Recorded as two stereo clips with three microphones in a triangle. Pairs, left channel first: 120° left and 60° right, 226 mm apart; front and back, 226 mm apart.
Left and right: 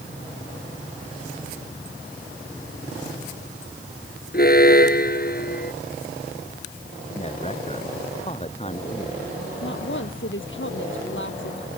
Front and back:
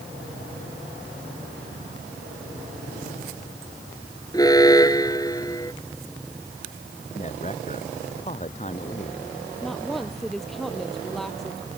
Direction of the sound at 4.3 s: 75° left.